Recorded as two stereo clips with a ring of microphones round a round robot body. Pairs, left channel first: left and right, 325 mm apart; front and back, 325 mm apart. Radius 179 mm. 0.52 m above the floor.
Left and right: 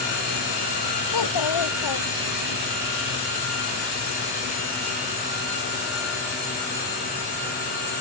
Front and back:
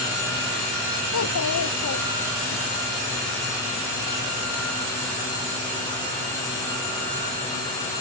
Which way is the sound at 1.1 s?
55° left.